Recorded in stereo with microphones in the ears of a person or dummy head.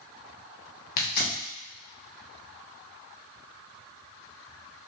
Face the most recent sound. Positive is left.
turn(degrees=50)  # may be behind; listen again after turning